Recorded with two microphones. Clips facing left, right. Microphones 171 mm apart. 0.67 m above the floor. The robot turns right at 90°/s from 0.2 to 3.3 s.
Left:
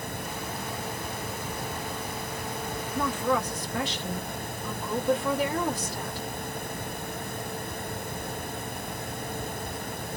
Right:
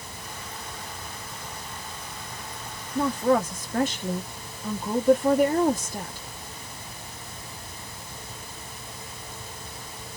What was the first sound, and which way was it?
A woman speaking, 150° right.